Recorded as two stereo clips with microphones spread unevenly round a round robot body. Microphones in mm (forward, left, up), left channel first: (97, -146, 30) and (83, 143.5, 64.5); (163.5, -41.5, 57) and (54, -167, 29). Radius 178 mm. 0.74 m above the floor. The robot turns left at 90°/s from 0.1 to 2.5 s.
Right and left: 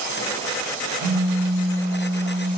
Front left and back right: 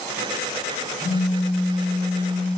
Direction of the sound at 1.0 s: 145° left.